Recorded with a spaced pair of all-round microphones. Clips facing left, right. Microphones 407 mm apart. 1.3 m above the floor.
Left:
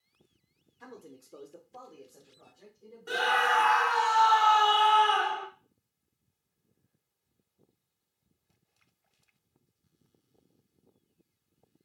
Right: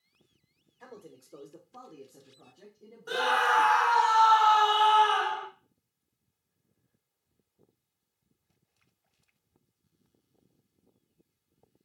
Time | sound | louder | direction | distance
0.8 | a man speaking | even | 25° left (ahead or behind) | 0.7 m
3.1 | a scream | right 1 dB | 40° left (ahead or behind) | 0.6 m